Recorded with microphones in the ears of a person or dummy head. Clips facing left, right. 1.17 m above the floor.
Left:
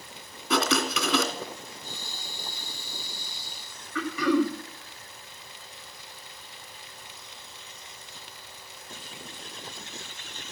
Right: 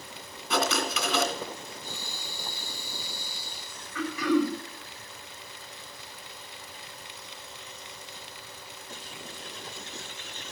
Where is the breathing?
85° right, 5.5 m.